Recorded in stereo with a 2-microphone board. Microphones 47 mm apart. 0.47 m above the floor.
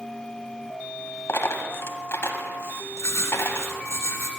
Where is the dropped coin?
65° left (ahead or behind), 1.1 m.